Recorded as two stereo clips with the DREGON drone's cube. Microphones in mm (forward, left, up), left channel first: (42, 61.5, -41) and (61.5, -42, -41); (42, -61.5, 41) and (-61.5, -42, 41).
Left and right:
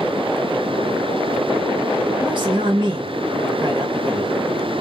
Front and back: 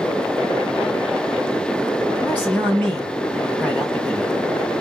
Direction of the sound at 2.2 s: 80° right.